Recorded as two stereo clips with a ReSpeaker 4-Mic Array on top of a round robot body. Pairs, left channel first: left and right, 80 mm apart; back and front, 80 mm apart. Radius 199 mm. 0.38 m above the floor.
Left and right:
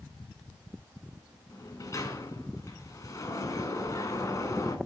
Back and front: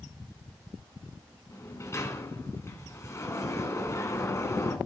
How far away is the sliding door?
About 2.5 m.